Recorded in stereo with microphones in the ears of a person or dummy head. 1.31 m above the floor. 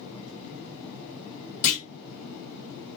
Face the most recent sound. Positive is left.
turn(degrees=45)  # may be behind; listen again after turning